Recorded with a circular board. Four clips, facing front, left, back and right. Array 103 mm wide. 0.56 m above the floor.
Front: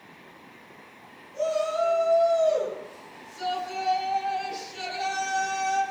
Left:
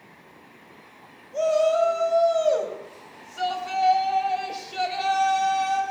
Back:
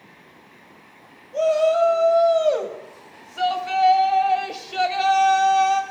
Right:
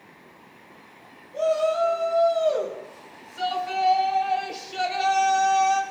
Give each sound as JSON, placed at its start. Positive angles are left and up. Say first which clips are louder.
{"t": 1.3, "sound": "a shout", "louder": "left 2 dB, back 8 dB", "azimuth_deg": 160, "distance_m": 4.5}